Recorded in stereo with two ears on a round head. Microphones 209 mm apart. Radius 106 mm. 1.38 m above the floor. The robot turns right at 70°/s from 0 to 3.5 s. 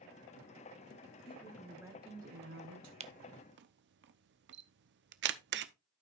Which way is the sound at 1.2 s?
150° left.